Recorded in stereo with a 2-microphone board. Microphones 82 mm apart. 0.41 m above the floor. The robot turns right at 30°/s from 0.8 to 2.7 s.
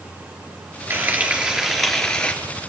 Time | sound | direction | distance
0.9 | frying | 30° right | 3.5 m